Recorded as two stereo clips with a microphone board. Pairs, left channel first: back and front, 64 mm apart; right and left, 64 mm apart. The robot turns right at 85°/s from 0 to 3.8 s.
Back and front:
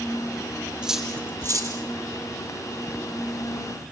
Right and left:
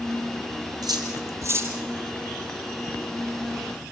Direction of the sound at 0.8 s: 75° left.